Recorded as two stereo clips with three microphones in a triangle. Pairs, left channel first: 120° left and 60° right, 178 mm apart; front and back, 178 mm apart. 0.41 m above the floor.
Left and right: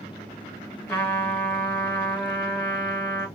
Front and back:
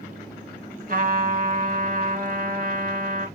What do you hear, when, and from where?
0.9 s a trumpet: 165° right, 1.4 m